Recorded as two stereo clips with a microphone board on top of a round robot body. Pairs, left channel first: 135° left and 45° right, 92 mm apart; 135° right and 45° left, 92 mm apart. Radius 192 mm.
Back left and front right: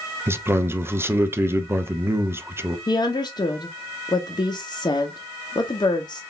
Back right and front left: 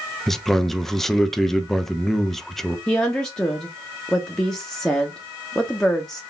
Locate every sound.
0.3 s a man speaking: 50° right, 0.8 m
2.9 s a woman speaking: 145° left, 0.9 m